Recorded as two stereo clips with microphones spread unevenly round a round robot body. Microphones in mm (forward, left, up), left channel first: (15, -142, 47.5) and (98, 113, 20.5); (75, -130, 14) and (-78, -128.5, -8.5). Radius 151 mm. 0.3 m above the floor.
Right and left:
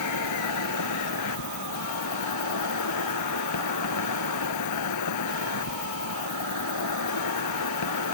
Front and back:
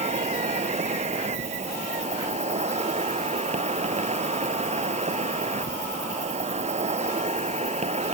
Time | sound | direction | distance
0.0 | an insect | 140° right | ?